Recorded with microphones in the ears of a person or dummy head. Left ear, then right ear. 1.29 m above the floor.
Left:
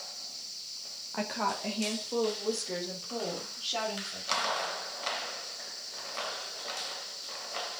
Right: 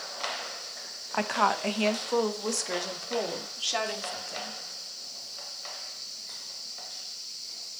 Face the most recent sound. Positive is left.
turn(degrees=-55)  # may be behind; listen again after turning